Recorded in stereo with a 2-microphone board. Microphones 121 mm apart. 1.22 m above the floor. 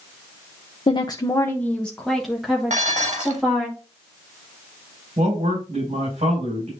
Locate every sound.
0.9 s a woman speaking: 45° left (ahead or behind), 0.6 m; by 3.7 s 10° right (ahead or behind), 2 m
2.7 s dishes clattering: 75° right (ahead or behind), 1.4 m
5.2 s a man speaking: 65° right (ahead or behind), 5.5 m